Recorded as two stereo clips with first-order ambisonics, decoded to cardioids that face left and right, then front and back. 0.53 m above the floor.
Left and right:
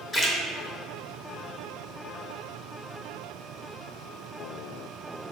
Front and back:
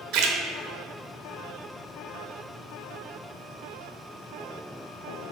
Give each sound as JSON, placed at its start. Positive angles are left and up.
{"t": 0.1, "sound": "a splash", "azimuth_deg": 165, "distance_m": 0.9}